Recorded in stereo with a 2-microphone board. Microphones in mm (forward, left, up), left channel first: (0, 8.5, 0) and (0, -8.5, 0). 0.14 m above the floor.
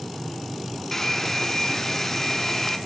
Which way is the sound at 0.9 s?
20° left (ahead or behind).